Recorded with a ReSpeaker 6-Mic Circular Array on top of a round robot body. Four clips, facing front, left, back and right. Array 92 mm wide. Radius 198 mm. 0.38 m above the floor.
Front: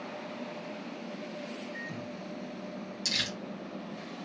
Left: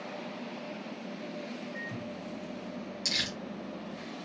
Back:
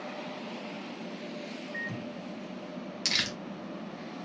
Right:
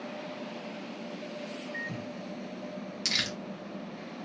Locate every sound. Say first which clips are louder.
1.7 s a microwave: right 1 dB, back 2 dB; 135° right, 1.8 m
3.0 s crumpling: right 3 dB, back 3 dB; 150° right, 1.5 m